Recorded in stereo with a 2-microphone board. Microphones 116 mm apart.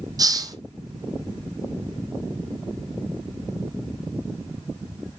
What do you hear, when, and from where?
0.2 s a hiss: 35° right (ahead or behind), 1.0 m